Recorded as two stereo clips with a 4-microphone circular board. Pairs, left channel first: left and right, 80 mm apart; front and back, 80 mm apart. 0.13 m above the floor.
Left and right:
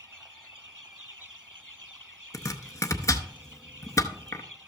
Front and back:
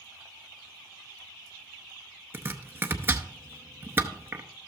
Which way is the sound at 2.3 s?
125° left.